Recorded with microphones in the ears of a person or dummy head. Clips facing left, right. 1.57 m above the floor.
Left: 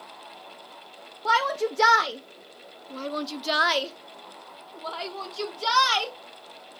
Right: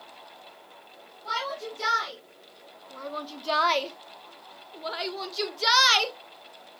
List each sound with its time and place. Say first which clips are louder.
1.2 s a shout: left 9 dB; 70° left (ahead or behind), 1.1 m; by 6.2 s 20° right (ahead or behind), 2 m